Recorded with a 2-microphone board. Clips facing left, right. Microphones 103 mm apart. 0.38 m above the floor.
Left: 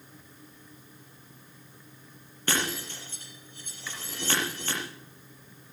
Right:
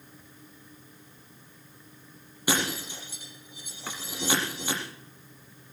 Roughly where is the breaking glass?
Centre.